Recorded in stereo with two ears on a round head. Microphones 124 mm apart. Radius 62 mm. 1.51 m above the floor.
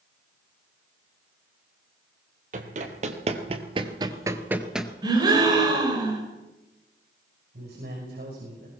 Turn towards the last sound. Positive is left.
turn(degrees=-85)